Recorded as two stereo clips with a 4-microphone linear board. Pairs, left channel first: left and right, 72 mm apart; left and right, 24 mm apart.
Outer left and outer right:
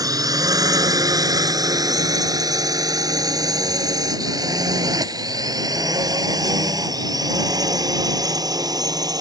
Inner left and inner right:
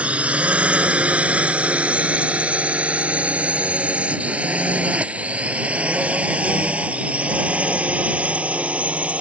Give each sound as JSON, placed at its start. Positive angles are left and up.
{"t": 0.0, "sound": "a drone", "side_deg": -55}